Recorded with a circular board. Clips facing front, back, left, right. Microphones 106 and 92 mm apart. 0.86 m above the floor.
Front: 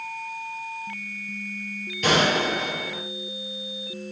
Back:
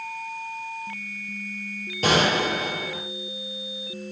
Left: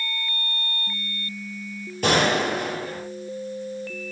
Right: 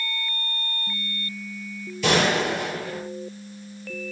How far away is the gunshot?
About 8.5 m.